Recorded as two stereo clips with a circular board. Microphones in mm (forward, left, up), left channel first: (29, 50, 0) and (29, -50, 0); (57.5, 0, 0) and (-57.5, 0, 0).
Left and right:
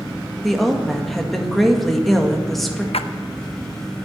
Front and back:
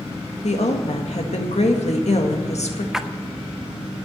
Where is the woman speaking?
Straight ahead, 1.9 m.